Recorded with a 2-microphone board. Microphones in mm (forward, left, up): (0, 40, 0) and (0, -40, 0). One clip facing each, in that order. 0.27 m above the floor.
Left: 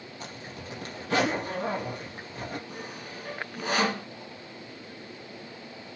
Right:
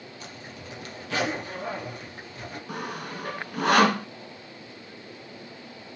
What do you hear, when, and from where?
0.2 s a zipper: 40° left (ahead or behind), 4.5 m
2.7 s sawing: 80° right, 0.9 m